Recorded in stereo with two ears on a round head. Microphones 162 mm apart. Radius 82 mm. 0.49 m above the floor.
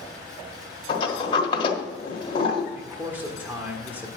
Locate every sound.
0.9 s a sliding door: 30° left (ahead or behind), 1.3 m
2.8 s a man speaking: 10° right (ahead or behind), 1.4 m